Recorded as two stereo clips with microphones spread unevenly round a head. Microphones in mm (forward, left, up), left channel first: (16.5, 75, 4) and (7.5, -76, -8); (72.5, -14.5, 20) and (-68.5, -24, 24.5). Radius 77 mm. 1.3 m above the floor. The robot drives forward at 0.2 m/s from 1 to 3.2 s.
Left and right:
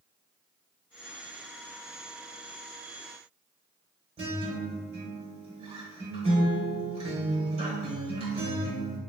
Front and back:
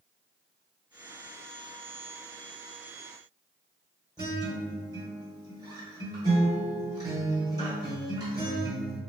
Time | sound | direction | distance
4.2 | a guitar | 130° right | 1.3 m